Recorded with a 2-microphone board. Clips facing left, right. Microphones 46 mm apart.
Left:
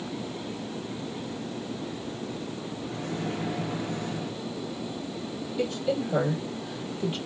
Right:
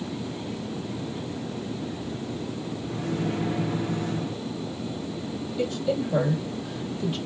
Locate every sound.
2.9 s a microwave: centre (ahead or behind), 0.7 m
5.6 s a woman speaking: 20° left (ahead or behind), 2 m